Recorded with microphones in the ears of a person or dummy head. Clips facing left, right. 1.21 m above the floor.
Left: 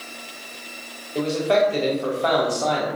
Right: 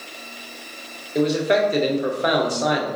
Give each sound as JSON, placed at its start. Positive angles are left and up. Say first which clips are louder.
{"t": 1.1, "sound": "a man speaking", "louder": "right 1 dB", "side_deg": -20, "distance_m": 0.7}